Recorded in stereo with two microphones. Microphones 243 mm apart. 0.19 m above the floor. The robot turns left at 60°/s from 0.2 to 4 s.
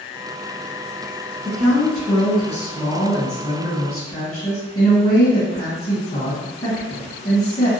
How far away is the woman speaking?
About 1.4 m.